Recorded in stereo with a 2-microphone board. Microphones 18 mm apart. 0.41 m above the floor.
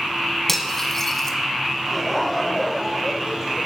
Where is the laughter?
5° left (ahead or behind), 1.1 m.